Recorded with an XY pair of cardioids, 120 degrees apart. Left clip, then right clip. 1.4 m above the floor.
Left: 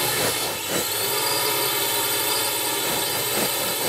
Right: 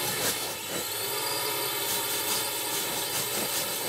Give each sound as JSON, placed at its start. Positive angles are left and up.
{"t": 0.0, "sound": "a drone", "azimuth_deg": 40}